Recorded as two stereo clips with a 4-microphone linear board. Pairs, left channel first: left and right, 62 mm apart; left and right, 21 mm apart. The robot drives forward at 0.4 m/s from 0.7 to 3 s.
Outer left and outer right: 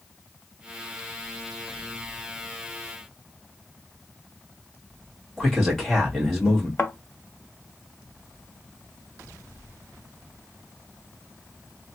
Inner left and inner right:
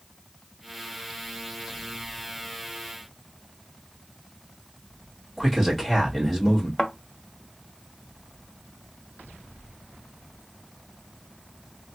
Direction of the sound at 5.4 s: Centre (ahead or behind).